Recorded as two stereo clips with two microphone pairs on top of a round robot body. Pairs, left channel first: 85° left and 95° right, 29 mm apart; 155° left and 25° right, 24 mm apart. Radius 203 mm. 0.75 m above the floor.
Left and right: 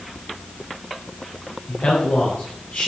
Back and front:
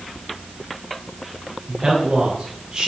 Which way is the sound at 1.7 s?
45° left.